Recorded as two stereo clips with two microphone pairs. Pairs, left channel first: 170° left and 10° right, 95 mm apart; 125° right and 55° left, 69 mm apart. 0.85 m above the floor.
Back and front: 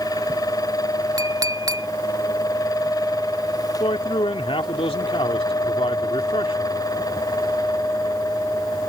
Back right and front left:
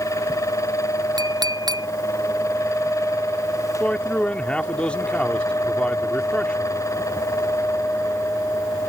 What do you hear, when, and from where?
1.2 s a clink: 45° left
3.8 s a man speaking: 160° left